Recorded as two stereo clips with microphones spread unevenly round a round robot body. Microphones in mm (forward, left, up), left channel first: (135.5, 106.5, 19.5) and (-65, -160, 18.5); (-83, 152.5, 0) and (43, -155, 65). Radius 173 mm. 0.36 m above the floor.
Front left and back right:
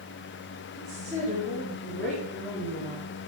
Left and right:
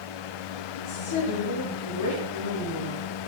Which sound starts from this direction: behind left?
A woman speaking, at 0.8 s.